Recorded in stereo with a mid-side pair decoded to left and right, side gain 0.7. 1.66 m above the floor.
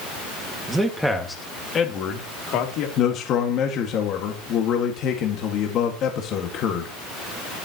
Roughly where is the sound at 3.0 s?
Ahead left.